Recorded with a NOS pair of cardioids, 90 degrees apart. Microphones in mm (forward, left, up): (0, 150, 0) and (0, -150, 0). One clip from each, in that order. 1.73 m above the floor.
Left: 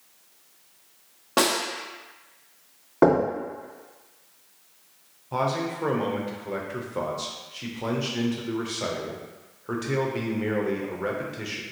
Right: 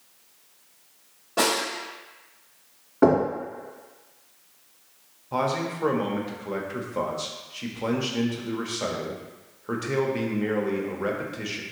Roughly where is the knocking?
Ahead left.